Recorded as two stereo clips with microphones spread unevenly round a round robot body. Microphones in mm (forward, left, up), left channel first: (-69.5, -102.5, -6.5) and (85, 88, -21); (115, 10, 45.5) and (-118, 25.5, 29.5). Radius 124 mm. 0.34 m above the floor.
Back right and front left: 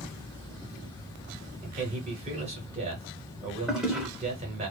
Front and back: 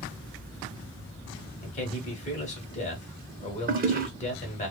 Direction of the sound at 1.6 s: 30° left.